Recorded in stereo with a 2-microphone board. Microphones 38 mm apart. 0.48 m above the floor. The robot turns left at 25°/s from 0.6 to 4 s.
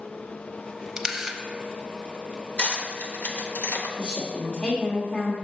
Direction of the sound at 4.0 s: 35° left (ahead or behind).